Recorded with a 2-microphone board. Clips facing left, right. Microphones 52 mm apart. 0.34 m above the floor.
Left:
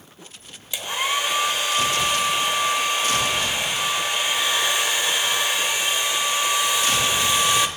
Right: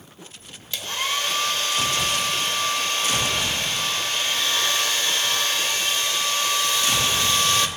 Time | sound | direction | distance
0.7 | a hair dryer | 15° left (ahead or behind) | 1.0 m